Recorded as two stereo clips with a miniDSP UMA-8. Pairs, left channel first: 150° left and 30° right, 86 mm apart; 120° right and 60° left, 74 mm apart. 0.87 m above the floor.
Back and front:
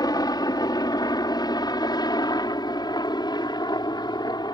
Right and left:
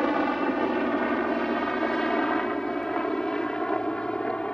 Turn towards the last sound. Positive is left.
turn(degrees=165)